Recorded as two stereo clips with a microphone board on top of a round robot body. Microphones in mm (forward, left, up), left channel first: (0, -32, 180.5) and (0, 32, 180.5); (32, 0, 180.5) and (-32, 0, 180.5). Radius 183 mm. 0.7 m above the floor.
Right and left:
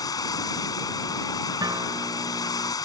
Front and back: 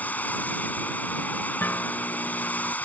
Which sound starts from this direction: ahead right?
Running water, at 0.0 s.